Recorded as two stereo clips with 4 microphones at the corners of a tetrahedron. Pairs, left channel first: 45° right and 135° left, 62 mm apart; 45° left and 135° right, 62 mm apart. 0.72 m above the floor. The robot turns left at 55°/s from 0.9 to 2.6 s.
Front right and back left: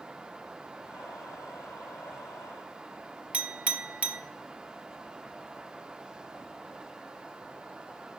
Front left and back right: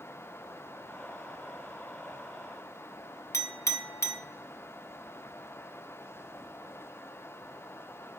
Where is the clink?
70° left, 0.8 m.